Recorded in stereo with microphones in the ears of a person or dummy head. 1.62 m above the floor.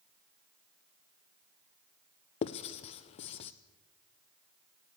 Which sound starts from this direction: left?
Writing, at 2.4 s.